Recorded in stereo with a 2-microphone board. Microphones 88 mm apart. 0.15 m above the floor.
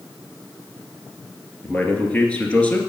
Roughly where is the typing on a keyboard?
No typing on a keyboard in this recording.